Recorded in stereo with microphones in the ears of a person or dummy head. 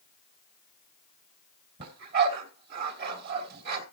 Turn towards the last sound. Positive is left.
turn(degrees=-55)  # may be behind; listen again after turning